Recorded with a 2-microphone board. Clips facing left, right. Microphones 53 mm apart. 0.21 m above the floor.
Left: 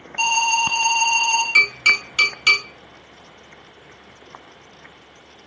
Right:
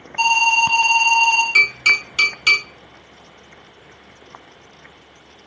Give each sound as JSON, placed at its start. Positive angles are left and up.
{"t": 0.2, "sound": "an alarm", "side_deg": -5, "distance_m": 1.8}
{"t": 1.6, "sound": "tapping", "side_deg": 5, "distance_m": 2.0}